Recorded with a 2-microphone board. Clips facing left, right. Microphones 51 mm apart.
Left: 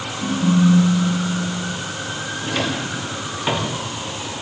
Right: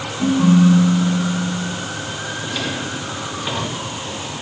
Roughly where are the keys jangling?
I don't hear keys jangling.